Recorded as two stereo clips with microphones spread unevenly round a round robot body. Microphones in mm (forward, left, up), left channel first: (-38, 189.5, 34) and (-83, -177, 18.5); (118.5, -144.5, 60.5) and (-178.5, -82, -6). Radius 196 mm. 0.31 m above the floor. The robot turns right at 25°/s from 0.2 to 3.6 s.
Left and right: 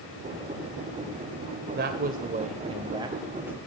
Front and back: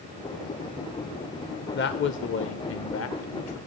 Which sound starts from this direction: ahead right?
A man speaking, at 1.8 s.